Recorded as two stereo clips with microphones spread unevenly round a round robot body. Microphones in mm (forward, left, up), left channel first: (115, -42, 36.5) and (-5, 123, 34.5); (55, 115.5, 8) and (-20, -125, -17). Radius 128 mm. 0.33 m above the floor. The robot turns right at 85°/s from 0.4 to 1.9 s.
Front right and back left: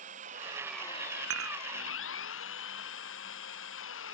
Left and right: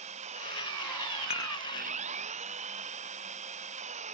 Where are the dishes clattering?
140° left; by 1.6 s 165° left.